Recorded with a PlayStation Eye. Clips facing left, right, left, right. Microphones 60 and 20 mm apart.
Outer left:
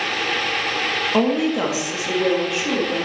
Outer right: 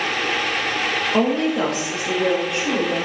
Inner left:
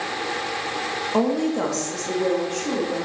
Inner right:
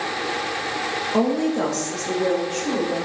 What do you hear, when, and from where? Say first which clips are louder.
1.1 s a woman speaking: outer left 1 dB, inner right 1 dB; 5° left (ahead or behind), 1.0 m; by 3.1 s centre (ahead or behind), 2 m